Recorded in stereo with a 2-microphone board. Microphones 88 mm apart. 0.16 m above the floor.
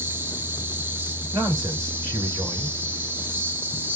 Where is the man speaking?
40° right (ahead or behind), 2.5 m.